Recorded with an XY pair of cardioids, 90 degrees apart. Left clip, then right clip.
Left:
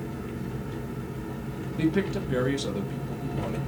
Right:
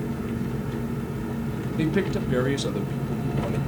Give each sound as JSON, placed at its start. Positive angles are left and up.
{"t": 0.0, "sound": "an engine running", "azimuth_deg": -45, "distance_m": 0.8}
{"t": 1.8, "sound": "a man speaking", "azimuth_deg": -30, "distance_m": 0.9}